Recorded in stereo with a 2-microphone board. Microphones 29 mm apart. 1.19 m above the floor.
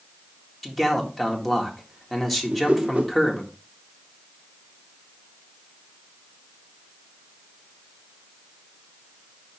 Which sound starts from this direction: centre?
A man speaking, at 0.6 s.